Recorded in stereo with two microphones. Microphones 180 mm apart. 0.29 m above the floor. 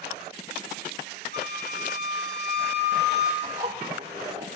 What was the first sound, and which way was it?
A flute, 70° right (ahead or behind).